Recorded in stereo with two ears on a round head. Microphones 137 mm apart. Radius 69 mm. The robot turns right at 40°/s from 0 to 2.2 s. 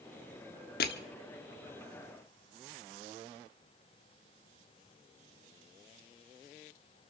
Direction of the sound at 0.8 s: 70° left (ahead or behind).